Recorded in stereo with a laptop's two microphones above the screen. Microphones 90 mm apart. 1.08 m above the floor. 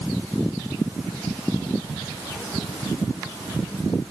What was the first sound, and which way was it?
Only background noise.